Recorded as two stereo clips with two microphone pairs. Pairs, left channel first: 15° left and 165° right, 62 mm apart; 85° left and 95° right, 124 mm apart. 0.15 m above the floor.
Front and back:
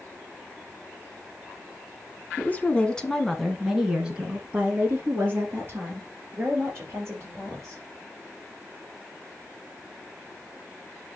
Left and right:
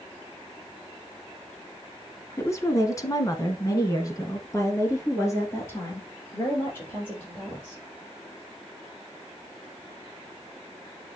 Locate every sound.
2.4 s a woman speaking: 40° left, 1.8 m; by 7.8 s 155° left, 5.5 m